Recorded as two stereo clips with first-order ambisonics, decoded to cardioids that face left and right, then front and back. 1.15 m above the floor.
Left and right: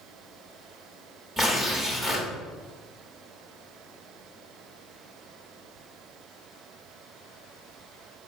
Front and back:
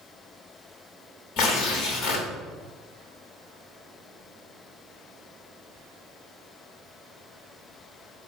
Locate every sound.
1.4 s tearing paper: 25° right, 1.1 m